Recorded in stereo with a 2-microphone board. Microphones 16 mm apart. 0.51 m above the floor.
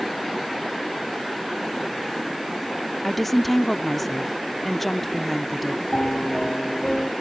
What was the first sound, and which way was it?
A woman speaking, 15° left (ahead or behind).